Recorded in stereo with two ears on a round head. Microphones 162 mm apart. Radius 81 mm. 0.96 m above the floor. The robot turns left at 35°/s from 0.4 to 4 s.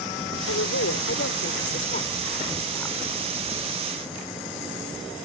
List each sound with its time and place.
0.5 s a woman speaking: 95° left; by 3.0 s 5° left